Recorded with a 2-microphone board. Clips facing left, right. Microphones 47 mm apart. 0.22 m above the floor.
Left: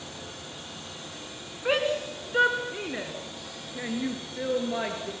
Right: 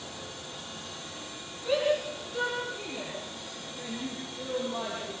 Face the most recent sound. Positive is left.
turn(degrees=60)  # may be behind; listen again after turning